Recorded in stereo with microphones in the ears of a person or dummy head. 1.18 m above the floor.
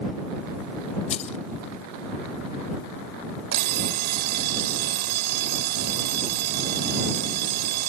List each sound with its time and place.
1.1 s keys jangling: 35° left (ahead or behind)
3.5 s an alarm clock: 60° right (ahead or behind)